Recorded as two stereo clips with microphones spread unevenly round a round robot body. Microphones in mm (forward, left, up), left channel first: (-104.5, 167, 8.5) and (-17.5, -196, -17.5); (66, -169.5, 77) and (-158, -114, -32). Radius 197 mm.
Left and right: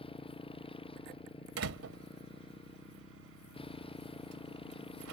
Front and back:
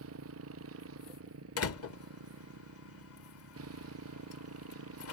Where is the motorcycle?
Straight behind.